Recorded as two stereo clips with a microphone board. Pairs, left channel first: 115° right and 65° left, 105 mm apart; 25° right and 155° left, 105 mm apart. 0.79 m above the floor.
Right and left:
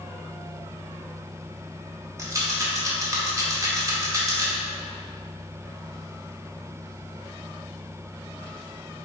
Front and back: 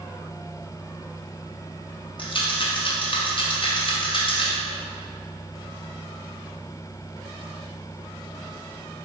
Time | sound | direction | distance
2.2 | a rattle | 10° left | 0.6 m